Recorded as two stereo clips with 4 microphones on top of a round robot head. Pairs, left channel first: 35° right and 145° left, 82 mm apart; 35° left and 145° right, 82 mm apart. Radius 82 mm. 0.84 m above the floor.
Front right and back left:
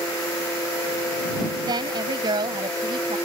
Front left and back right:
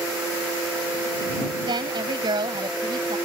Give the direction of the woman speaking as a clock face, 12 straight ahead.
6 o'clock.